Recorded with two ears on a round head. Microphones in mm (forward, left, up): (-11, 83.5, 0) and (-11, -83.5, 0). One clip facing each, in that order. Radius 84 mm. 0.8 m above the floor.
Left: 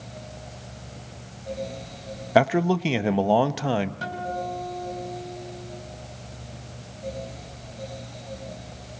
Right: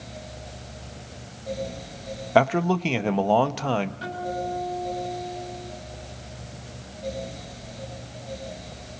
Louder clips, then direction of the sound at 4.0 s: Right 1 dB; 60° left (ahead or behind).